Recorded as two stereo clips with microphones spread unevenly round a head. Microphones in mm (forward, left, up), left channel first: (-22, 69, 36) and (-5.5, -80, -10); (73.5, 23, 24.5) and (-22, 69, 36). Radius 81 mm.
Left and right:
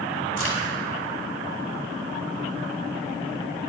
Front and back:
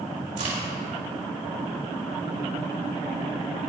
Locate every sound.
0.4 s a crack: 175° left, 5 m